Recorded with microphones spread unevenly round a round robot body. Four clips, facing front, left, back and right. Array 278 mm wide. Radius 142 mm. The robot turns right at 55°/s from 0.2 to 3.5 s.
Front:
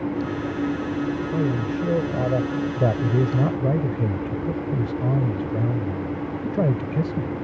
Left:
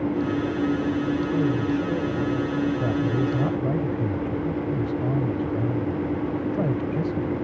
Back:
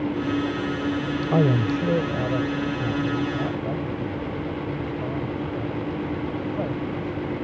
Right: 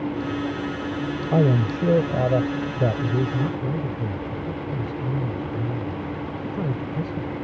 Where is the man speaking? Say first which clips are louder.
Right 6 dB, back 3 dB; 120° right; by 7.3 s 5° left.